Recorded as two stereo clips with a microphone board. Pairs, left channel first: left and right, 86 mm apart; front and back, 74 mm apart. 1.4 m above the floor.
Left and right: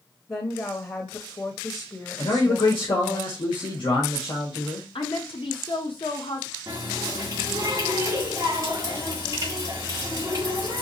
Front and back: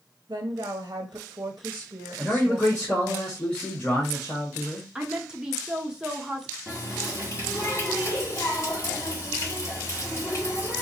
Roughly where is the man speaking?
Left.